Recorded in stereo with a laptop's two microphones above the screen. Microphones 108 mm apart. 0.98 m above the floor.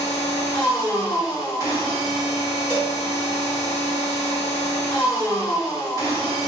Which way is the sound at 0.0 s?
30° left (ahead or behind).